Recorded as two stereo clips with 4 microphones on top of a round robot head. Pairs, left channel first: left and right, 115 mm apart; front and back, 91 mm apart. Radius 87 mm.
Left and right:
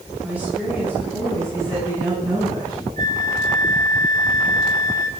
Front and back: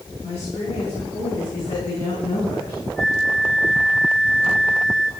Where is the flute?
85° right, 1.9 m.